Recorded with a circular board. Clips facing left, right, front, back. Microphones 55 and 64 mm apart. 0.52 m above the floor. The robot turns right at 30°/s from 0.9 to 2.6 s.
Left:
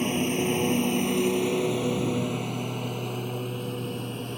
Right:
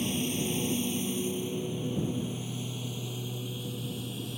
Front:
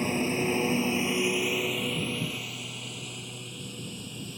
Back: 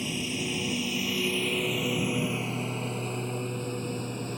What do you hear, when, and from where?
0.0 s a lawn mower: 50° left; by 4.4 s 135° left